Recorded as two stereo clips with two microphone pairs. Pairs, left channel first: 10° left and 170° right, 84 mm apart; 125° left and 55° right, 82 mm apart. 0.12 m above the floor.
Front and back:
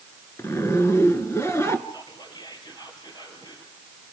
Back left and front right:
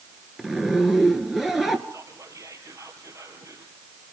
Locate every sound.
0.4 s a zipper: 30° left, 1.8 m
1.9 s whispering: 10° right, 2.5 m